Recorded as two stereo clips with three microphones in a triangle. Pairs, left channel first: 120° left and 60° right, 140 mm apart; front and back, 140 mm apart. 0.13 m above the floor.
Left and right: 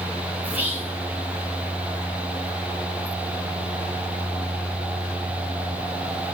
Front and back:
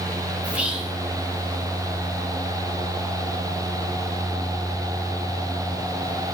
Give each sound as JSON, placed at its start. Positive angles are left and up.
{"t": 0.4, "sound": "whispering", "azimuth_deg": -115, "distance_m": 1.4}